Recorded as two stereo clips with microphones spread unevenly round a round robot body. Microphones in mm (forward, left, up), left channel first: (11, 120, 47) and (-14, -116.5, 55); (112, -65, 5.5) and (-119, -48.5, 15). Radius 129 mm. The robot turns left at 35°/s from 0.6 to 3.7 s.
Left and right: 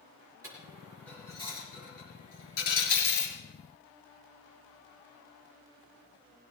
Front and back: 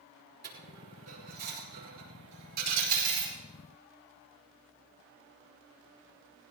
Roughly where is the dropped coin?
Behind.